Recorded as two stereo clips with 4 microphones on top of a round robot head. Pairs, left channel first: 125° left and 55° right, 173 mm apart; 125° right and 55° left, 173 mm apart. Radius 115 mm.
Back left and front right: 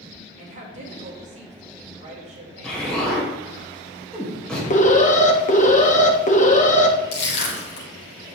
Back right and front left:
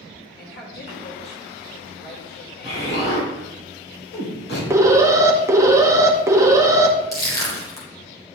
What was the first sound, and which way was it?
A woman speaking, 105° right.